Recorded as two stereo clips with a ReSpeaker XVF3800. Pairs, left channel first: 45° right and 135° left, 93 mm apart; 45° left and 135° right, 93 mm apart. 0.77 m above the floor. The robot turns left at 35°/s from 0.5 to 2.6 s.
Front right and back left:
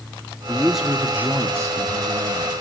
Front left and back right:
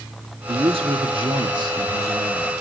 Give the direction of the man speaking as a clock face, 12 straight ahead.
4 o'clock.